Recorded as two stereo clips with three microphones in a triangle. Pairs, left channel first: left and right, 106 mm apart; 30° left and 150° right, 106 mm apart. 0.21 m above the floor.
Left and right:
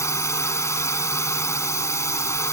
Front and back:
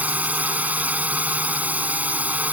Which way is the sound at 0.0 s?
140° left.